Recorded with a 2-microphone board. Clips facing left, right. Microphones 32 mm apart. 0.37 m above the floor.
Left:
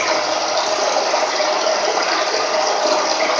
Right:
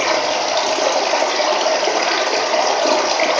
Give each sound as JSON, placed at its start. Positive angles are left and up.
{"t": 0.0, "sound": "running water", "side_deg": -55, "distance_m": 1.7}